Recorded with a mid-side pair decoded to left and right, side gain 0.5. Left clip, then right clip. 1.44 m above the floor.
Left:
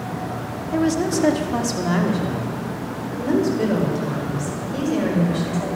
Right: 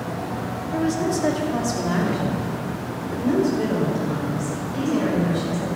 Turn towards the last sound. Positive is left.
turn(degrees=20)